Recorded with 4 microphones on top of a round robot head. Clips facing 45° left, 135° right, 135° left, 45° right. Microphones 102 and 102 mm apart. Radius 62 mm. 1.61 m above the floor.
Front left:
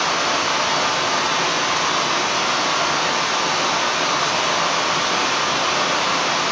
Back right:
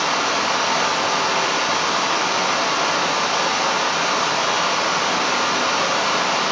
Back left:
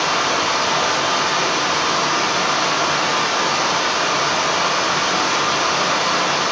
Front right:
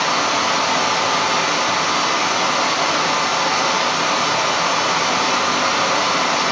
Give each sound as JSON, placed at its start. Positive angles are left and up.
{"t": 0.0, "sound": "running water", "azimuth_deg": 85, "distance_m": 1.3}